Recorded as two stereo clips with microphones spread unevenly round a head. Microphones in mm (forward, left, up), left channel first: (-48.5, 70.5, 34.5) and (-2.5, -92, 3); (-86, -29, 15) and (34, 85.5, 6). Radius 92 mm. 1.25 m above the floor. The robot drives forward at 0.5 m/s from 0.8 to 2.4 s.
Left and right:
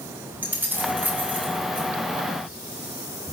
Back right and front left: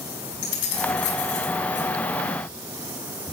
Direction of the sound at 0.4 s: 155° right.